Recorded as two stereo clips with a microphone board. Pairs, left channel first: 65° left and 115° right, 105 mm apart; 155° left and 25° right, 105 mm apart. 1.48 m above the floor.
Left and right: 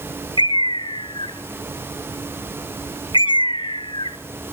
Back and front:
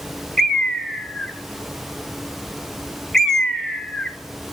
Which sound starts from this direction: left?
A bird, at 0.4 s.